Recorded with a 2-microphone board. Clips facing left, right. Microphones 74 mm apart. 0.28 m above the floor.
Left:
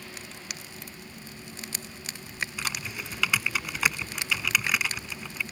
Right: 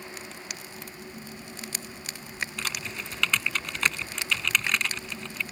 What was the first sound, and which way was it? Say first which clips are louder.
Typing on a keyboard: even; 5° left (ahead or behind).